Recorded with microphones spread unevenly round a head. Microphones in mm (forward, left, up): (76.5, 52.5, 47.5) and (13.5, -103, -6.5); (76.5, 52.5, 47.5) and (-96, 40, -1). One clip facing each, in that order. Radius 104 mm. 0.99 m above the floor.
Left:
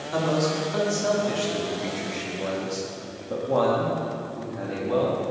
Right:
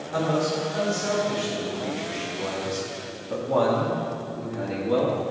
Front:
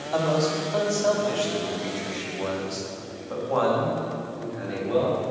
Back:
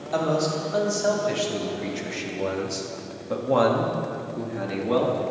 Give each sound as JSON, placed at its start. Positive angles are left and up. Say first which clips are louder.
{"t": 0.1, "sound": "a man speaking", "louder": "even, even", "azimuth_deg": 100, "distance_m": 2.5}